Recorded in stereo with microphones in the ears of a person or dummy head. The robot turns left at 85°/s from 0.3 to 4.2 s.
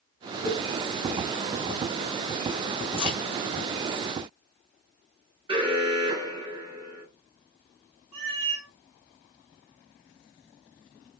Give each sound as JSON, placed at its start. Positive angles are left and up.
{"t": 0.5, "sound": "a cowbell", "side_deg": -5, "distance_m": 1.2}
{"t": 3.0, "sound": "a crack", "side_deg": 35, "distance_m": 1.1}
{"t": 5.5, "sound": "an alarm", "side_deg": -20, "distance_m": 0.9}
{"t": 8.1, "sound": "a cat meowing", "side_deg": -30, "distance_m": 1.3}